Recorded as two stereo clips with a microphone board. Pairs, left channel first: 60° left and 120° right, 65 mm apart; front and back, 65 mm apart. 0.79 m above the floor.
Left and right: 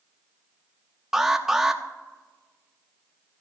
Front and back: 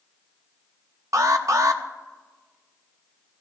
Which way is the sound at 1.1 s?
155° left.